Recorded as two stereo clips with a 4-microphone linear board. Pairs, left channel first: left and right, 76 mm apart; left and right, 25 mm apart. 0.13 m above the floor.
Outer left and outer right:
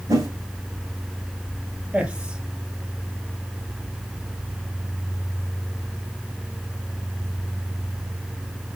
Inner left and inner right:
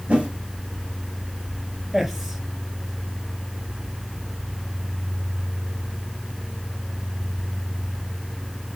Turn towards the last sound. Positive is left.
turn(degrees=-15)  # may be behind; listen again after turning